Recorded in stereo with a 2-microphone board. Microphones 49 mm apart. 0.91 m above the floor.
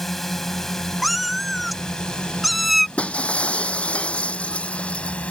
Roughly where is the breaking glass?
Left.